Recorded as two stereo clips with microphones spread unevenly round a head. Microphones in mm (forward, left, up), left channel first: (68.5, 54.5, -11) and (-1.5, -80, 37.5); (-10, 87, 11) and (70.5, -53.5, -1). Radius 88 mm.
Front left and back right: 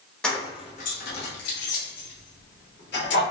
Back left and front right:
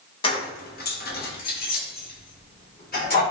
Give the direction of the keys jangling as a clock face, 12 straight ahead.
7 o'clock.